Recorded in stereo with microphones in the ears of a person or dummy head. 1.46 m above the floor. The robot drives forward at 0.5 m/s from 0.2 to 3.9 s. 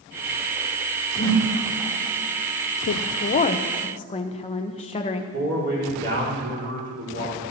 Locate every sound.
1.2 s a whoosh: 50° left (ahead or behind), 3 m; by 1.4 s 45° left (ahead or behind), 3 m
2.9 s a woman speaking: 50° left (ahead or behind), 0.5 m; by 5.2 s 25° left (ahead or behind), 0.9 m
5.3 s a man speaking: 55° right (ahead or behind), 4 m